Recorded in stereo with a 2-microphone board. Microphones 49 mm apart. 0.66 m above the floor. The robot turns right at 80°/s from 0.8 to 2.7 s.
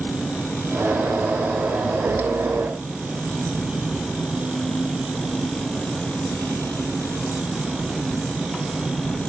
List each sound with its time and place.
0.0 s an engine running: 20° left; by 9.3 s 170° left